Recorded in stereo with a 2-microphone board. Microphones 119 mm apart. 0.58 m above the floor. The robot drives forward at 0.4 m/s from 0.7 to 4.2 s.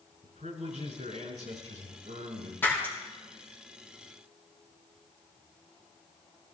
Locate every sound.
0.2 s a man speaking: 80° right, 7.5 m
2.6 s breaking glass: 20° left (ahead or behind), 6 m